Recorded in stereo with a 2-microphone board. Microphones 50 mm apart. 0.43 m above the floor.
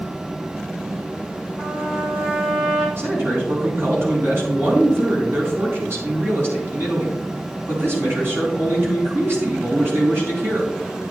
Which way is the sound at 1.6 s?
45° right (ahead or behind).